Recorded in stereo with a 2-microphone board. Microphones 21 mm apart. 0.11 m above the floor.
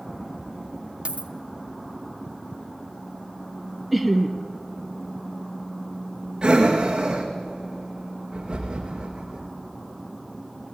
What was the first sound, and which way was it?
A dropped coin, 55° right (ahead or behind).